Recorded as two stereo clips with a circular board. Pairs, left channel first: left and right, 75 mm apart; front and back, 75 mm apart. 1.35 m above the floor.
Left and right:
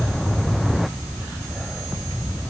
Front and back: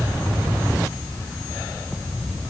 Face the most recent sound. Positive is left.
No sound to turn to.